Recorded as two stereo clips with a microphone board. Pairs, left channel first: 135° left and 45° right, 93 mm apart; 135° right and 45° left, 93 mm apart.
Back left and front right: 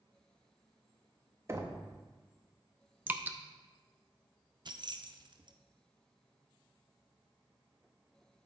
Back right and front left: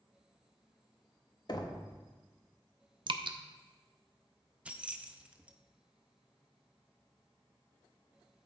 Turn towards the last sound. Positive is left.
turn(degrees=-30)